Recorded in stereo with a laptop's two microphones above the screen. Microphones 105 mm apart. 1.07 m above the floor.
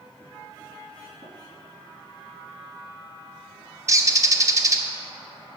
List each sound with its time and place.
1.2 s tapping: 70° right (ahead or behind), 3 m
3.9 s a bird: 30° right (ahead or behind), 0.8 m